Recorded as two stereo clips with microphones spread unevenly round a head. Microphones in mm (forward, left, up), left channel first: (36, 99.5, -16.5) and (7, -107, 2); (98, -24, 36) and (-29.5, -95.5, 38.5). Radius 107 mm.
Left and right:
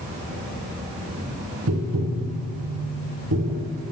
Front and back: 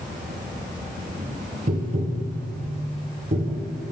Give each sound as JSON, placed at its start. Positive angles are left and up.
{"t": 0.0, "sound": "an insect", "azimuth_deg": -125, "distance_m": 3.0}
{"t": 1.7, "sound": "tapping", "azimuth_deg": -115, "distance_m": 1.0}